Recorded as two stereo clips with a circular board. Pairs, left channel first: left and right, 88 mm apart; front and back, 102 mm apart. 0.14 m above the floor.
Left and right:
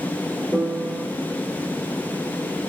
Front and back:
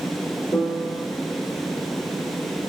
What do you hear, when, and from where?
0.5 s a piano: 30° right, 0.8 m